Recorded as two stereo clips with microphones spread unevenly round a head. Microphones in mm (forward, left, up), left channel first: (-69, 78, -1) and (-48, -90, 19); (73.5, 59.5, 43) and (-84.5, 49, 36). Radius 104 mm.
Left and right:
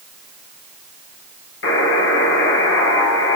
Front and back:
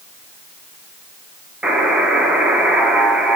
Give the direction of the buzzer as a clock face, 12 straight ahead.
9 o'clock.